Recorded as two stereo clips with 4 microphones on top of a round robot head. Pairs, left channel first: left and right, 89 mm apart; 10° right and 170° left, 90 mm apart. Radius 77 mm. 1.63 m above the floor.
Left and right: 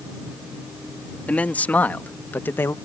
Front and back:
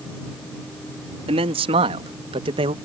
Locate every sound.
1.3 s a man speaking: 165° left; by 2.8 s 155° left